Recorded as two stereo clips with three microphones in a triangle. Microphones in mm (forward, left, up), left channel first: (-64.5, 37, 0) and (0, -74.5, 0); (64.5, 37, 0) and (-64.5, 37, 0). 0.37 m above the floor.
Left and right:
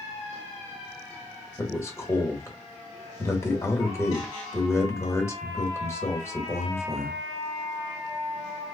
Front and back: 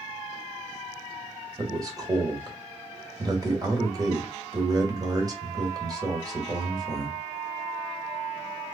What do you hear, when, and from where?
1.6 s a man speaking: 165° left, 1.2 m